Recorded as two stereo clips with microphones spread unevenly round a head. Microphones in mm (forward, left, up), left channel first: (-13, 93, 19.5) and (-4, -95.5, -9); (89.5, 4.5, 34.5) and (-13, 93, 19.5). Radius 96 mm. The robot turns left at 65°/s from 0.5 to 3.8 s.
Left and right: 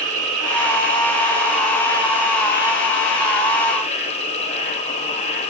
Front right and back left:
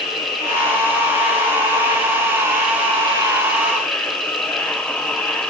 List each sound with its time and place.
0.0 s an insect: 105° right, 3.5 m; by 5.5 s 40° left, 3.5 m